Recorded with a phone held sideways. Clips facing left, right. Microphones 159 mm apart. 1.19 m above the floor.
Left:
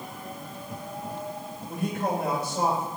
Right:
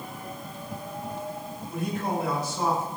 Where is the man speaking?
55° left (ahead or behind), 4.5 m.